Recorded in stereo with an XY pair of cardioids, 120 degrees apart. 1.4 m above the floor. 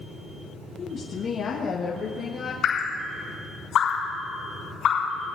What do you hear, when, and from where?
0.8 s a woman speaking: 45° left, 1.1 m
2.6 s dripping: 60° left, 5 m